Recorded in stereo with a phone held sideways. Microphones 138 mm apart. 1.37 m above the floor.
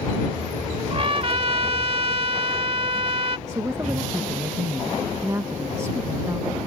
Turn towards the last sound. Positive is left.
turn(degrees=-20)  # may be behind; listen again after turning